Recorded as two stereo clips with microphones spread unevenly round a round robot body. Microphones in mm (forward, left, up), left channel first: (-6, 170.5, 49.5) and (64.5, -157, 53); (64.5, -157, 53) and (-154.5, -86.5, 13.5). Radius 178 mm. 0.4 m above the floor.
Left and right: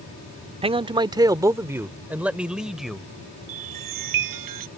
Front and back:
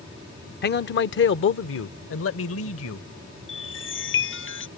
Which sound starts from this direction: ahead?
A man speaking, at 0.6 s.